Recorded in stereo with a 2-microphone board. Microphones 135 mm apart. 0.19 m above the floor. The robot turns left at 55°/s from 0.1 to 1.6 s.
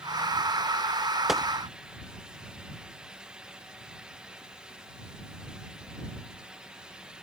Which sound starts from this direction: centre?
A gunshot, at 1.3 s.